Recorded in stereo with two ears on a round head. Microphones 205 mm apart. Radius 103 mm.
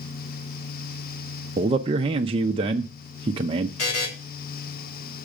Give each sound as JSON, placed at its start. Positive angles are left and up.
{"t": 1.6, "sound": "a man speaking", "side_deg": -25, "distance_m": 0.6}
{"t": 3.8, "sound": "a buzzer", "side_deg": 75, "distance_m": 2.0}